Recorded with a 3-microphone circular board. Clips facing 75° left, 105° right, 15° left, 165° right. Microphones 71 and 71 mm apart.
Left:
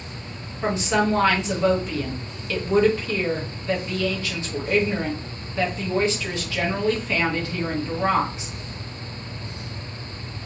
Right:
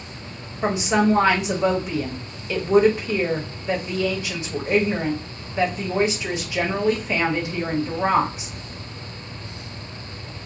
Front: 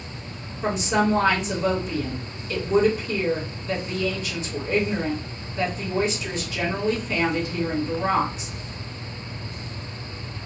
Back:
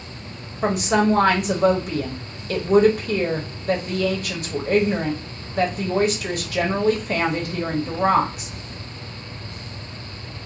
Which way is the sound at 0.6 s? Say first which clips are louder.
Right 2 dB, back 3 dB; 175° right.